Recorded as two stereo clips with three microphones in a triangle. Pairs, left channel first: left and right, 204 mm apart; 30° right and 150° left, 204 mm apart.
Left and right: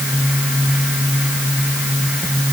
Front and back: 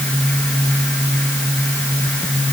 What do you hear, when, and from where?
Only background noise.